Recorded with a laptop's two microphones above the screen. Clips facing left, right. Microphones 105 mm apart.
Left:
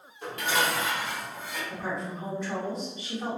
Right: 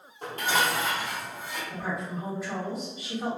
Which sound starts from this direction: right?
Dishes clattering, at 0.2 s.